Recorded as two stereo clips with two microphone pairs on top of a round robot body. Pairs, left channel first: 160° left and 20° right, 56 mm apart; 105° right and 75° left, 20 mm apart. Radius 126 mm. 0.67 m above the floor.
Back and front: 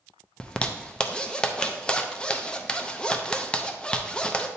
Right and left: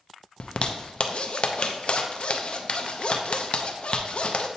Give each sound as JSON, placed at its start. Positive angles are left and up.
{"t": 0.4, "sound": "a zipper", "azimuth_deg": -110, "distance_m": 0.7}